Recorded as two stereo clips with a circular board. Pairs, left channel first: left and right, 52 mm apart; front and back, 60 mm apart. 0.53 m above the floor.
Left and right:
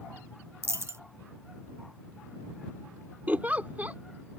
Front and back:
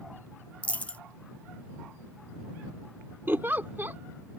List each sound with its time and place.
0.6 s a dropped coin: 65° right
3.3 s a giggle: 135° right